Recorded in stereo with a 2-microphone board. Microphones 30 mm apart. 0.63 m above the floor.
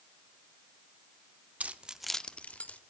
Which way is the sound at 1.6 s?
50° right (ahead or behind).